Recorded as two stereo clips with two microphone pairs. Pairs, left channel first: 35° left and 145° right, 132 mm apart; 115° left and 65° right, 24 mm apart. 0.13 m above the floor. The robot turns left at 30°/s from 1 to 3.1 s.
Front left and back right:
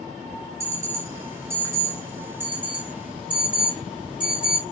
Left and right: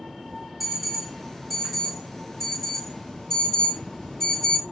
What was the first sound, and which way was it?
An alarm, 150° right.